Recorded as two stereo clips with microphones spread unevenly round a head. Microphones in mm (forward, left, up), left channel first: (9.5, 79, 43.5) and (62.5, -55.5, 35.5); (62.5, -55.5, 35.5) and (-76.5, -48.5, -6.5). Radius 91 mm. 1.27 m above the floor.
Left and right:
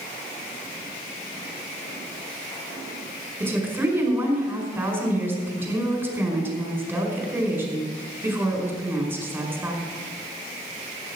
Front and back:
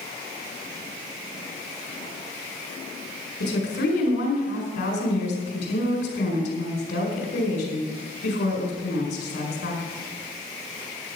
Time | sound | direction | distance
3.4 | a woman speaking | 10° left | 5 m